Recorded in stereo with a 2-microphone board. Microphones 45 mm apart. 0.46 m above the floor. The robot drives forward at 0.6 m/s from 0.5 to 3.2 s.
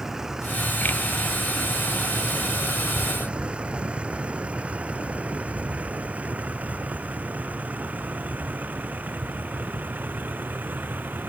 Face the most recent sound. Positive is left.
turn(degrees=-45)  # may be behind; listen again after turning